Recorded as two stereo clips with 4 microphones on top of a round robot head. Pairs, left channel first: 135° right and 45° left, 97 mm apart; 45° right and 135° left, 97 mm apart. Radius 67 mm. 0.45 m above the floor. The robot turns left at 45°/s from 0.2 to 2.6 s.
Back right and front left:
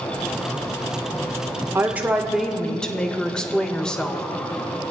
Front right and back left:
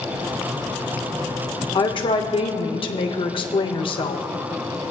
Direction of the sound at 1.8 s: 20° right.